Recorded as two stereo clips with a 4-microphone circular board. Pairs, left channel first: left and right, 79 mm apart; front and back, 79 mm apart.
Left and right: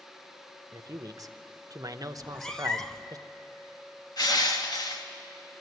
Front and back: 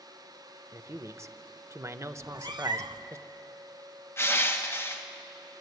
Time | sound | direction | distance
0.7 | a man speaking | 130° right | 0.8 m
2.2 | a cat meowing | 175° left | 0.7 m
4.2 | crushing | 60° left | 1.5 m